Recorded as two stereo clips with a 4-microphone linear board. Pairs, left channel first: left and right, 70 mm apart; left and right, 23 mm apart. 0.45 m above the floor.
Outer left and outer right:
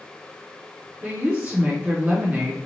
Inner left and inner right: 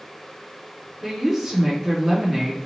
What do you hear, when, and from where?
1.0 s a woman speaking: 25° right (ahead or behind), 0.9 m